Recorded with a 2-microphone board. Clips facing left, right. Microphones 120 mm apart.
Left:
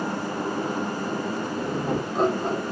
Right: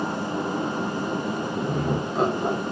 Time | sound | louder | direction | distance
1.6 | laughter | even | 35° left (ahead or behind) | 1.0 m